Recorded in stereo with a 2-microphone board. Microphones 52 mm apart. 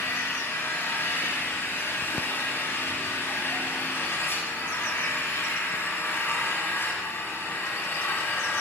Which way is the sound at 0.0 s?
50° left (ahead or behind).